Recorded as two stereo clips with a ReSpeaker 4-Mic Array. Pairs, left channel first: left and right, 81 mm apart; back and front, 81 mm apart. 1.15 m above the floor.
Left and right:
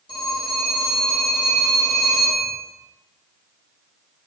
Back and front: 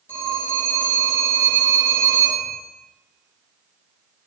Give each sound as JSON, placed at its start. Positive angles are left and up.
{"t": 0.1, "sound": "a phone ringing", "azimuth_deg": 115, "distance_m": 0.9}